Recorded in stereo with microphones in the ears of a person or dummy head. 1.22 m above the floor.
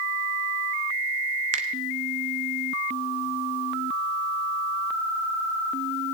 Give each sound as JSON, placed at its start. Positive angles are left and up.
{"t": 1.5, "sound": "a finger snap", "side_deg": -45, "distance_m": 1.0}